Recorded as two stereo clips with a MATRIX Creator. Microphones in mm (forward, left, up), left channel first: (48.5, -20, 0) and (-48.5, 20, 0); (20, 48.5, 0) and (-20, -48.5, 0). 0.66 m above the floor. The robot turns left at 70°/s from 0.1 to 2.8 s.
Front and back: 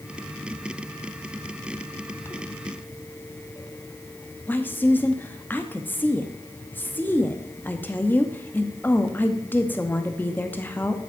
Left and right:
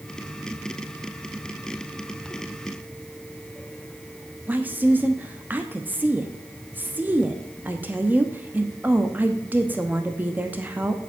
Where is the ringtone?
I don't hear a ringtone.